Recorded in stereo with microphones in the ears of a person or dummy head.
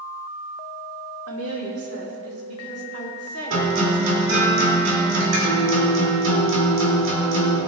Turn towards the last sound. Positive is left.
turn(degrees=-80)